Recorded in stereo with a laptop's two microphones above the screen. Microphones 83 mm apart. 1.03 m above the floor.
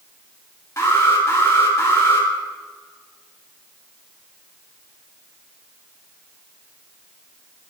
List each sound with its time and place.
0.8 s an alarm: 35° left (ahead or behind), 3 m